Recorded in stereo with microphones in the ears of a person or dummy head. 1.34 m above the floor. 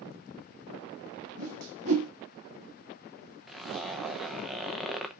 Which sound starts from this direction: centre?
A zipper, at 3.5 s.